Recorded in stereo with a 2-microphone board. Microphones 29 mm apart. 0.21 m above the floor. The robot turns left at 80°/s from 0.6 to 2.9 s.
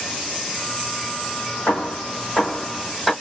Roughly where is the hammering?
Left.